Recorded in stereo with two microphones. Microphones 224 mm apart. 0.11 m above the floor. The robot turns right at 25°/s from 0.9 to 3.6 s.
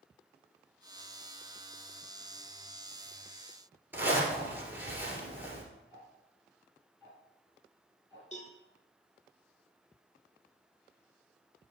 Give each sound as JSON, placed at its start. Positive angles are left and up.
{"t": 3.9, "sound": "a zipper", "side_deg": -10, "distance_m": 1.9}
{"t": 5.9, "sound": "ticking", "side_deg": -15, "distance_m": 3.5}
{"t": 8.3, "sound": "a cowbell", "side_deg": 35, "distance_m": 1.3}